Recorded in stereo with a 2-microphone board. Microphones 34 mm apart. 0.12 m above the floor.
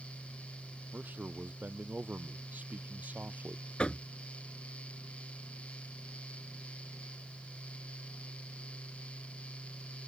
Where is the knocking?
35° left (ahead or behind).